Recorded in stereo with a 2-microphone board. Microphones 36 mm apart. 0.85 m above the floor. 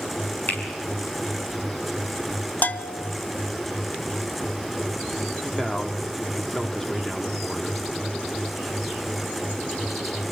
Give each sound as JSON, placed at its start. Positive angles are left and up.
{"t": 0.5, "sound": "a finger snap", "side_deg": 55, "distance_m": 6.5}
{"t": 2.6, "sound": "a bell", "side_deg": 50, "distance_m": 0.8}
{"t": 5.4, "sound": "a man speaking", "side_deg": 10, "distance_m": 1.9}